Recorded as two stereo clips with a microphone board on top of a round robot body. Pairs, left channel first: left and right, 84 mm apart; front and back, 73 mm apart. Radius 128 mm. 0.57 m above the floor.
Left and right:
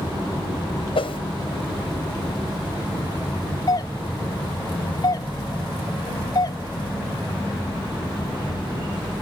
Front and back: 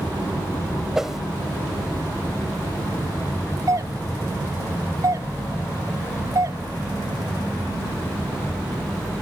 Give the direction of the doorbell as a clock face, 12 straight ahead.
8 o'clock.